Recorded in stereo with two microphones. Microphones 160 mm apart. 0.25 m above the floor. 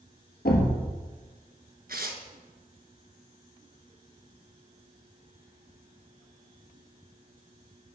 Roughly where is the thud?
Left.